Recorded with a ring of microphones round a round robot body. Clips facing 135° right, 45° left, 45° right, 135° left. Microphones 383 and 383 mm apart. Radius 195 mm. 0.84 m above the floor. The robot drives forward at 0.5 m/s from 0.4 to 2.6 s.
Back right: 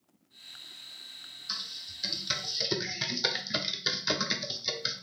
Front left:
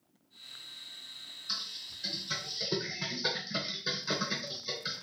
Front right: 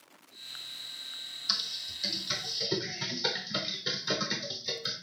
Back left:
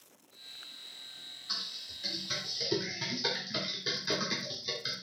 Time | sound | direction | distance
1.5 | typing on a keyboard | 55° right | 0.5 m